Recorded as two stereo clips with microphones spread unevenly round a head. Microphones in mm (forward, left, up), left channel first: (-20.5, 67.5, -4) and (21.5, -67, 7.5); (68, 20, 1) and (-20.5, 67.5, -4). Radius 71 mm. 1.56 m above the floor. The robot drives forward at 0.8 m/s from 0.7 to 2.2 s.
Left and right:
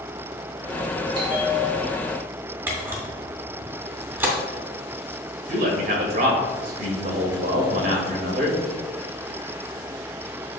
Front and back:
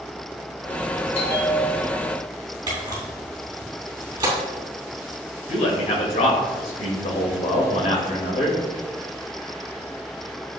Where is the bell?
15° right, 1.6 m; by 2.2 s 30° right, 0.8 m.